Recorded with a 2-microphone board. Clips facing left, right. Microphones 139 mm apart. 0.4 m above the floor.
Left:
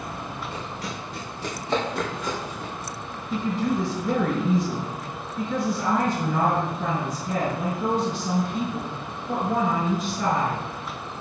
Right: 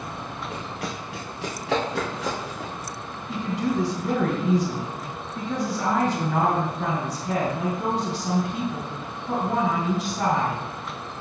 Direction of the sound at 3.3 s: 70° right (ahead or behind).